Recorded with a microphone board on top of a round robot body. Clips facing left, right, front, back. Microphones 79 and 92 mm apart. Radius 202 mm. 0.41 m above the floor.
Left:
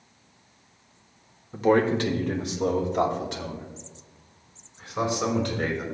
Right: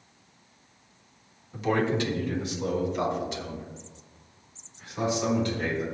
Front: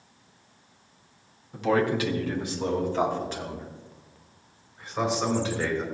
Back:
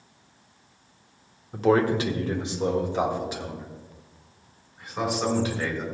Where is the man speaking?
140° left, 1.6 m; by 5.9 s 95° left, 6 m.